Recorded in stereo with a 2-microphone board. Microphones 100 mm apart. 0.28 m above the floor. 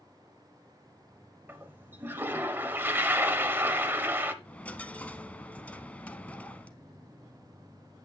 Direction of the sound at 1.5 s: 20° right (ahead or behind).